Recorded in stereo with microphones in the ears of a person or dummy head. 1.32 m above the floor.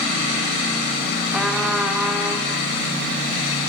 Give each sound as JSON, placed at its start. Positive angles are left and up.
{"t": 1.3, "sound": "a trumpet", "side_deg": 5, "distance_m": 1.4}